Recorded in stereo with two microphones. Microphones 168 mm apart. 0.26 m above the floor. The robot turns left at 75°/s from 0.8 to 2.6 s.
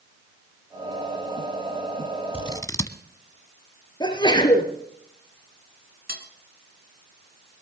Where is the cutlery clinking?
70° right (ahead or behind), 1.7 m.